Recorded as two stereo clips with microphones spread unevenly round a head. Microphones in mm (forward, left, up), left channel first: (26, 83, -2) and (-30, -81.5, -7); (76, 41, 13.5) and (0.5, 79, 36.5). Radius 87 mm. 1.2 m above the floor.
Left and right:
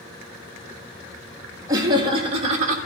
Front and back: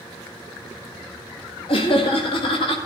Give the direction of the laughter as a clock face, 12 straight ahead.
1 o'clock.